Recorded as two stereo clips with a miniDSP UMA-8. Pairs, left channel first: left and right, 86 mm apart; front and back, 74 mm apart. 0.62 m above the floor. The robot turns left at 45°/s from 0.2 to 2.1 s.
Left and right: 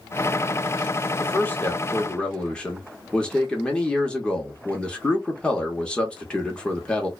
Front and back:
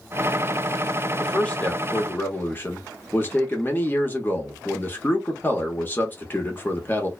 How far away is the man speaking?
About 0.9 m.